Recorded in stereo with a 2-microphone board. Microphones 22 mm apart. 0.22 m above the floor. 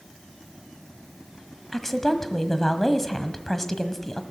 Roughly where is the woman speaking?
Centre.